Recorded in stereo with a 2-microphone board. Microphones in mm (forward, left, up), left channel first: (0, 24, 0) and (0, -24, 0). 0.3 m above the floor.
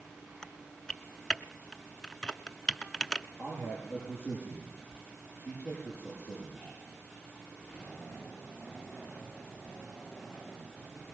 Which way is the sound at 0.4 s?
15° left (ahead or behind).